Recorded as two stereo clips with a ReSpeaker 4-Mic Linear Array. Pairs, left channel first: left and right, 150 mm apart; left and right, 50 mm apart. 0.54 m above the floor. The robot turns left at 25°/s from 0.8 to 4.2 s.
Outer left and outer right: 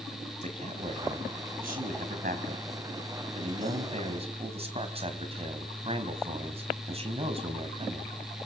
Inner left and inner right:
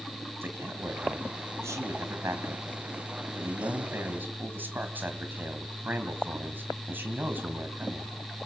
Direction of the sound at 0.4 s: 50° right.